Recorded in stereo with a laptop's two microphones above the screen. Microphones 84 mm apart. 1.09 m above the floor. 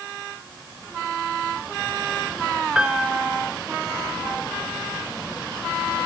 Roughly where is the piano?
Centre.